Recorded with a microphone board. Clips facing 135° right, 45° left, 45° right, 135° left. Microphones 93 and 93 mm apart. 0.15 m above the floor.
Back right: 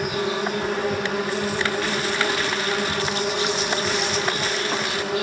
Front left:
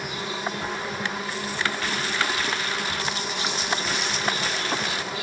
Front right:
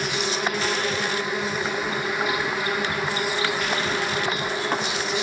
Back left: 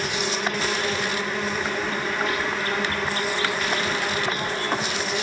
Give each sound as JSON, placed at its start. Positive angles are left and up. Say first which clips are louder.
{"t": 0.0, "sound": "an insect", "louder": "back right 6 dB, front right 1 dB", "azimuth_deg": -120, "distance_m": 1.1}